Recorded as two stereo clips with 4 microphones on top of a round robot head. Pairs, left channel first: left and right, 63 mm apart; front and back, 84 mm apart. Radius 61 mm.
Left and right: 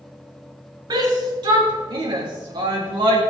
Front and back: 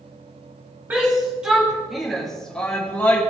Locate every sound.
0.9 s a shout: 105° right, 3.5 m; by 3.2 s 70° right, 3 m